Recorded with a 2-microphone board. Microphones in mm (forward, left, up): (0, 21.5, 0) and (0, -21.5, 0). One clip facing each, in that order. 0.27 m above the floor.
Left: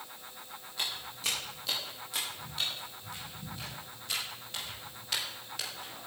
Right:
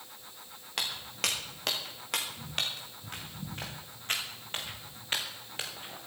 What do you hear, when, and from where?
0.8 s footsteps: 75° right (ahead or behind), 4.5 m; by 6.0 s 25° right (ahead or behind), 4 m